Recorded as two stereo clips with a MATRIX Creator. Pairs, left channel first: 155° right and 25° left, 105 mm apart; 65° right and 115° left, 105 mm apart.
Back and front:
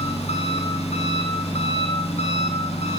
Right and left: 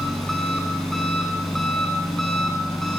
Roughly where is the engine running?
Behind right.